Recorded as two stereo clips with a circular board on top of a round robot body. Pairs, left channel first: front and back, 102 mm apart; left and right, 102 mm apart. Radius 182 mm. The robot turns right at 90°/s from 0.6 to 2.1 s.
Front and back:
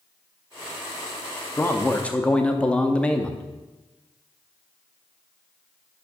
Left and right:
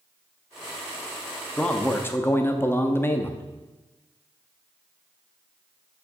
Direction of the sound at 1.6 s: 15° left.